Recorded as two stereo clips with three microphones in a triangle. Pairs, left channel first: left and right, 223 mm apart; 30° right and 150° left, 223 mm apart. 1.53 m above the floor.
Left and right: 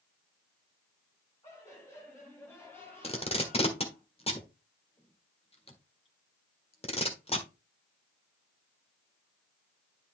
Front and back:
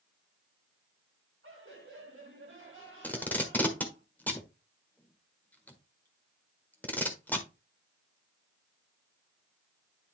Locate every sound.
1.4 s laughter: 165° left, 6.5 m; by 4.0 s 175° left, 5.5 m
3.0 s tape being pulled: 45° left, 1.4 m